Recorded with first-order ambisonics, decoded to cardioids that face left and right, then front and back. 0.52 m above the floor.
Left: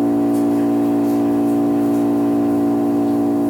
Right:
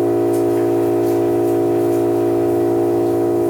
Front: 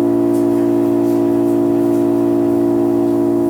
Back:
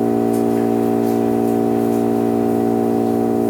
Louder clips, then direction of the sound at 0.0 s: Right 2 dB, front 3 dB; 120° right.